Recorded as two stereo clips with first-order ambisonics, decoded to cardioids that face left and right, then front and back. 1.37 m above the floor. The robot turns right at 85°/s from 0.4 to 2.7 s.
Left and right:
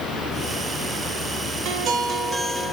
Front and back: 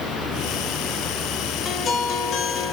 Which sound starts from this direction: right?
A guitar, at 1.6 s.